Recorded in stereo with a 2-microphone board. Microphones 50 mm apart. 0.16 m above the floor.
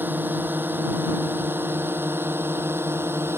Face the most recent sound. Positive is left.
turn(degrees=-50)  # may be behind; listen again after turning